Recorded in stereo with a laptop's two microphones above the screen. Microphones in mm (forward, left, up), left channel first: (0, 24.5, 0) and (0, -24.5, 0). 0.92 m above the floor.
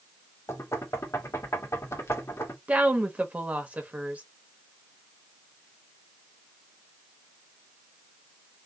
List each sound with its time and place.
0.5 s knocking: 75° left (ahead or behind), 1.4 m
2.7 s a woman speaking: 30° right (ahead or behind), 1.1 m